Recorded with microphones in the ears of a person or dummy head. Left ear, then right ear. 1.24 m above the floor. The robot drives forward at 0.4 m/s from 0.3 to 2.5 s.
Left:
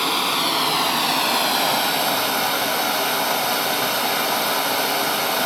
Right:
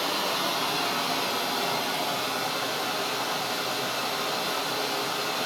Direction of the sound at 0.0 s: 40° left (ahead or behind).